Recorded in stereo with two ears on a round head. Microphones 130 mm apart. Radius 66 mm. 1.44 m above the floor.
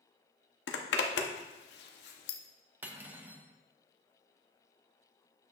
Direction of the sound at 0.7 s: 80° left.